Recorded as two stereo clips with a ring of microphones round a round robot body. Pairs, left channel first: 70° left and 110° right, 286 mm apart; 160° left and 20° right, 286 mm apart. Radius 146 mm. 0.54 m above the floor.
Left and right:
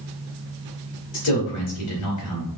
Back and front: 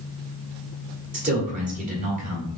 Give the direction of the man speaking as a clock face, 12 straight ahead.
11 o'clock.